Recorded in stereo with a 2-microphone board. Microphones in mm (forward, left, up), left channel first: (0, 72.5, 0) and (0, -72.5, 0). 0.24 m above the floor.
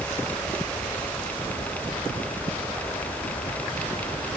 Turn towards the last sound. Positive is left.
No sound to turn to.